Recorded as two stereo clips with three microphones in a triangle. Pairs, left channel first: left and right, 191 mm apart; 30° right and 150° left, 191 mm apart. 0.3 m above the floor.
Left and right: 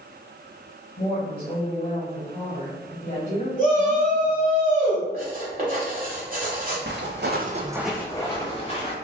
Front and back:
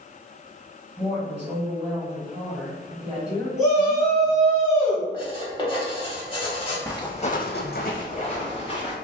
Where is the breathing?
I don't hear breathing.